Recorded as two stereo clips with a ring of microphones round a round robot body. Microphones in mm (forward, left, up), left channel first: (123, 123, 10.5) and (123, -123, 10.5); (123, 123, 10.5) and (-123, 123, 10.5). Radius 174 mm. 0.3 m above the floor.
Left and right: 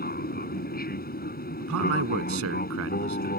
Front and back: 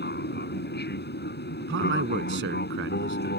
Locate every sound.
0.0 s an aircraft: 45° left
1.6 s a man speaking: 125° right